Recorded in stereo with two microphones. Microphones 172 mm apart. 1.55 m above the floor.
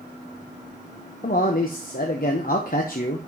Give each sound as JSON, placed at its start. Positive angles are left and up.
{"t": 1.2, "sound": "a man speaking", "side_deg": 55, "distance_m": 0.9}